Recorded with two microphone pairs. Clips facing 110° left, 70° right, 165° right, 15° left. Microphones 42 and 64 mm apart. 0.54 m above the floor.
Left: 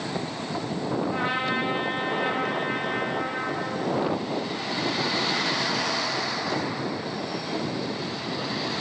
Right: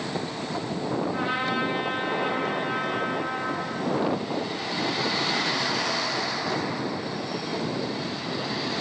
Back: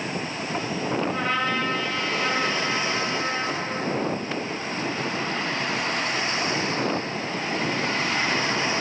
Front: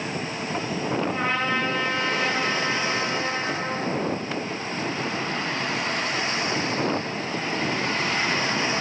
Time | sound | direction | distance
1.1 | a trumpet | 80° left | 3 m